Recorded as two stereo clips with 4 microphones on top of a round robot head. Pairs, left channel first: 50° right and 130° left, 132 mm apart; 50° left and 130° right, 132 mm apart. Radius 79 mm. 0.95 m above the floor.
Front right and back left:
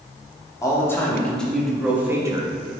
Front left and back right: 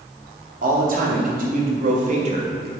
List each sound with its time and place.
0.6 s a man speaking: 120° right, 2.5 m; by 2.7 s straight behind, 1.7 m